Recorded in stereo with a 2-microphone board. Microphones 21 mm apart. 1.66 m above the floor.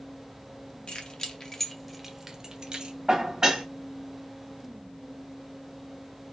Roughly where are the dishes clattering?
Right.